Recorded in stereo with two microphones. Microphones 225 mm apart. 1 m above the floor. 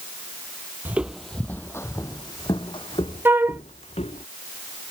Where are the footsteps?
10° right (ahead or behind); by 4.2 s 30° left (ahead or behind).